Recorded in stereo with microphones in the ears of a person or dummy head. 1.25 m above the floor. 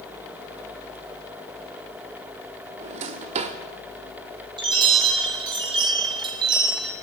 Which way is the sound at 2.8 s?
35° right (ahead or behind).